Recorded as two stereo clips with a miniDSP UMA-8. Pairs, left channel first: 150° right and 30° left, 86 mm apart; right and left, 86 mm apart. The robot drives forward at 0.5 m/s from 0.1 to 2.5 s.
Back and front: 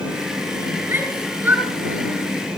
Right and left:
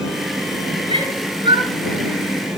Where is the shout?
95° left, 7 m; by 2.1 s 100° left, 7 m.